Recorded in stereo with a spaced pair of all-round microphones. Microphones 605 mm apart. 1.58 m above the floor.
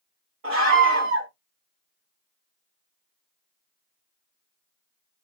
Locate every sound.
0.4 s a scream: 55° right (ahead or behind), 2 m